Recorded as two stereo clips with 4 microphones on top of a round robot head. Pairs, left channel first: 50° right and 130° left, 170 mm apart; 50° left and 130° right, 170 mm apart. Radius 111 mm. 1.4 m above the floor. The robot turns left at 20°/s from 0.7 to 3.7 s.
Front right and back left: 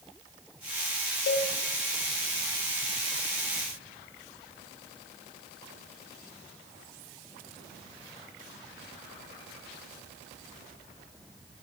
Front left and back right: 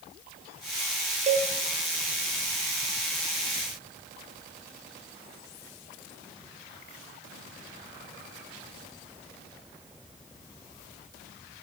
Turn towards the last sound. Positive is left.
turn(degrees=-125)